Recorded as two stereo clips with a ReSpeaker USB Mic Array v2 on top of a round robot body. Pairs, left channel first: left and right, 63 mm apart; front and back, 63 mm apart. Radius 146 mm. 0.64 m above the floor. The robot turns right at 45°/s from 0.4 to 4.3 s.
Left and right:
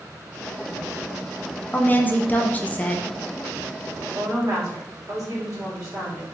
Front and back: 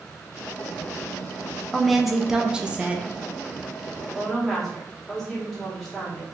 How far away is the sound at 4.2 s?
About 1.6 m.